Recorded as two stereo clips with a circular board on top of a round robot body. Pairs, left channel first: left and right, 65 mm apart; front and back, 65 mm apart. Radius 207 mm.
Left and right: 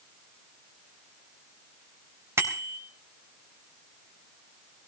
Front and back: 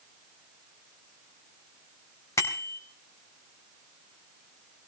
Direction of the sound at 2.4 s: 45° right.